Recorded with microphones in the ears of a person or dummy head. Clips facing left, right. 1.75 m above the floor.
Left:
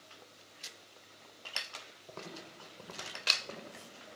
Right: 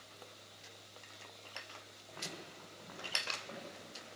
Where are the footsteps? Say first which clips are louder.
Left 2 dB; 45° left (ahead or behind), 6 m; by 3.9 s 40° left (ahead or behind), 8 m.